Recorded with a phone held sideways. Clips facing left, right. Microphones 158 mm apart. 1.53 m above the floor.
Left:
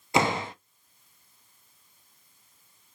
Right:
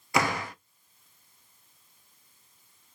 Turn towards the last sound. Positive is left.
turn(degrees=25)  # may be behind; listen again after turning